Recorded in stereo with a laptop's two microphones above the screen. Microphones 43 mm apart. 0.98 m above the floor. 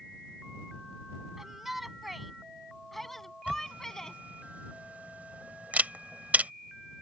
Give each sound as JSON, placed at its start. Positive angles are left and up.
{"t": 1.4, "sound": "a shout", "side_deg": -5}
{"t": 3.5, "sound": "a camera shutter", "side_deg": -40}